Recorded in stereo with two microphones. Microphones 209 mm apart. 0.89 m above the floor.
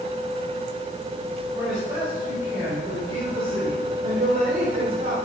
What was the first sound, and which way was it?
A man speaking, 15° right (ahead or behind).